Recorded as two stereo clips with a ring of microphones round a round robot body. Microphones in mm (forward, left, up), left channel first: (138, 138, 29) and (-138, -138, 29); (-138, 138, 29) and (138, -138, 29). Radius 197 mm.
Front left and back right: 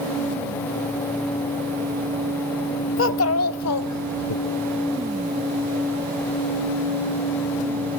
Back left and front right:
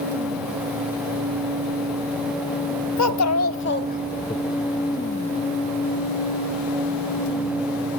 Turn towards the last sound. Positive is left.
turn(degrees=50)